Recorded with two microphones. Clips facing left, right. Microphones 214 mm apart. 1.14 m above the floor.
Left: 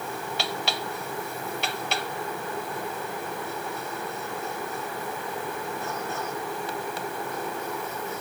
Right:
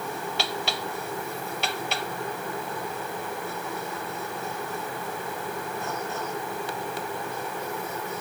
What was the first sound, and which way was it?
Only background noise.